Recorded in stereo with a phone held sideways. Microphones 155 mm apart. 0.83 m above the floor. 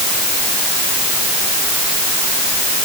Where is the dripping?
I don't hear dripping.